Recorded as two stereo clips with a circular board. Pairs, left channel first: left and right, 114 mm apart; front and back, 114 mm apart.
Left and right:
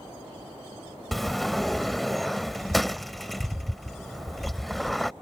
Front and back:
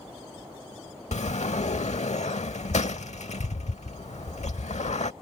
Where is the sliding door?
Straight ahead.